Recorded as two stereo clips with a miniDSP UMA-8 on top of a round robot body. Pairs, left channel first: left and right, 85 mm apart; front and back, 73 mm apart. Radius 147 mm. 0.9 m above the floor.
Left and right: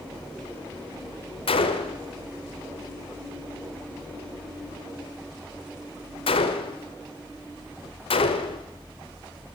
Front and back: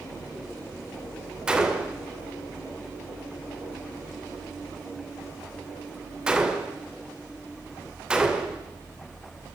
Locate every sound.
1.5 s a gunshot: 100° left, 1.7 m